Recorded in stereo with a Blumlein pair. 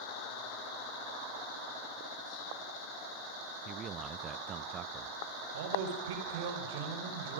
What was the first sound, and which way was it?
A man speaking, 25° right.